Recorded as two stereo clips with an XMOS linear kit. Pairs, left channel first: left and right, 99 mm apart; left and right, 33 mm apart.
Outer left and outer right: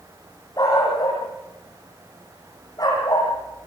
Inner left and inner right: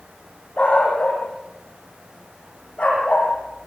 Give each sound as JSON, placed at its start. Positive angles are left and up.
{"t": 0.6, "sound": "a dog barking", "side_deg": 40, "distance_m": 10.0}